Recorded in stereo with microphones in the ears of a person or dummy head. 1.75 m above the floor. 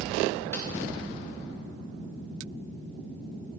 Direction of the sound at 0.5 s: 15° left (ahead or behind).